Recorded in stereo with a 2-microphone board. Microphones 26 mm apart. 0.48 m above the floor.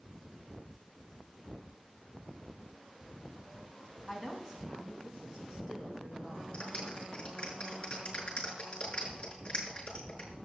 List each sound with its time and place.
4.1 s a woman speaking: 15° right (ahead or behind), 3 m; by 6.4 s 45° right (ahead or behind), 6 m
6.5 s a clap: 35° left (ahead or behind), 5.5 m